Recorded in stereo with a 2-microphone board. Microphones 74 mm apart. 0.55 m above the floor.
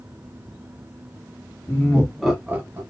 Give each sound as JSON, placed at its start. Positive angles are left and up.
{"t": 1.7, "sound": "laughter", "side_deg": 30, "distance_m": 1.3}